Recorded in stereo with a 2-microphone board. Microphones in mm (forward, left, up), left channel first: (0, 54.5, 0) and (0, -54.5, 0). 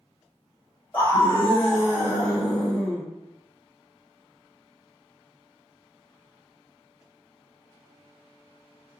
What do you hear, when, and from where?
0.9 s a scream: 15° left (ahead or behind), 1.3 m; by 3.0 s 5° right (ahead or behind), 1.5 m